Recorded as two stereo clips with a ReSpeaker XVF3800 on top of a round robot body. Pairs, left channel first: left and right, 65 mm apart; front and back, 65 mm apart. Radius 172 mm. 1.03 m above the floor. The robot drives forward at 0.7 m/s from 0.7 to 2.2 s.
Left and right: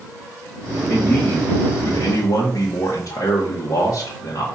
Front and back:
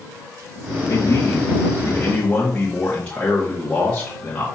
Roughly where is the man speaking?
Ahead left.